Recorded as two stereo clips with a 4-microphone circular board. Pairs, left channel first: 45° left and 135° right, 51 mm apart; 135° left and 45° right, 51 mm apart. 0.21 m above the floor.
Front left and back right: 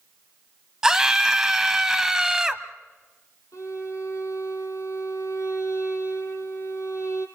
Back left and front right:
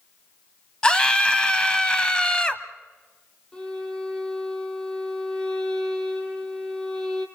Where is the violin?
60° left, 2.5 m.